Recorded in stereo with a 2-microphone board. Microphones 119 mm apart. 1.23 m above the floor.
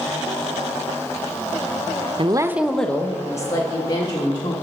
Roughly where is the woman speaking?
Right.